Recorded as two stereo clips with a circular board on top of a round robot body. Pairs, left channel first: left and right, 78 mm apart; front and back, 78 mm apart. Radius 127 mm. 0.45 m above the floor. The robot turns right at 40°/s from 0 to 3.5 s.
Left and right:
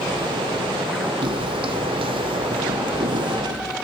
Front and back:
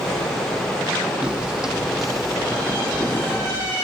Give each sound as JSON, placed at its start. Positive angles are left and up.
{"t": 1.2, "sound": "footsteps", "azimuth_deg": -100, "distance_m": 1.5}